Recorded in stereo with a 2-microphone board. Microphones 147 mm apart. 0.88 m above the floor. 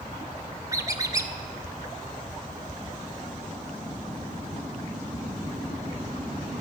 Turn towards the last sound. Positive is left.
turn(degrees=-25)  # may be behind; listen again after turning